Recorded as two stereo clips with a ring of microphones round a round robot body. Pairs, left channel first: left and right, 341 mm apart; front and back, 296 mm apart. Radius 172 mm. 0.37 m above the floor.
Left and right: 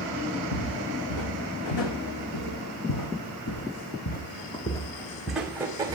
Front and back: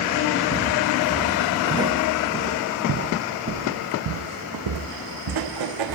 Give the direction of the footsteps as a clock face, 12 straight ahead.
9 o'clock.